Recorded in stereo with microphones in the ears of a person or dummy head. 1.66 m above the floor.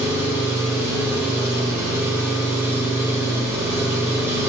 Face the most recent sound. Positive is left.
turn(degrees=-10)  # may be behind; listen again after turning